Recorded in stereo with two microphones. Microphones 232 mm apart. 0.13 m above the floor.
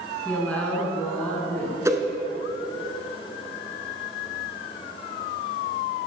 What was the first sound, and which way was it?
A woman speaking, 5° left (ahead or behind).